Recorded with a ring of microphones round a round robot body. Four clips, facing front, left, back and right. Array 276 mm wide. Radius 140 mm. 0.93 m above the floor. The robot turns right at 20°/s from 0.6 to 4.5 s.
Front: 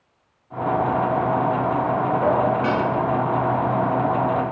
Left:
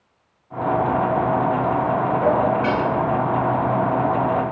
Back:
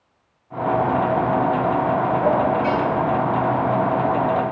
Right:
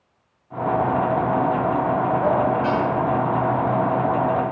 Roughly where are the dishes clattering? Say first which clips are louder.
Left 1 dB, even; ahead left.